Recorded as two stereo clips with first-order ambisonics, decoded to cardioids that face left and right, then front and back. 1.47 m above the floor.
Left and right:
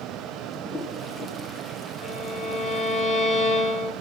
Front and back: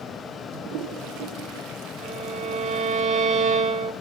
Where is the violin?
145° left, 3 m.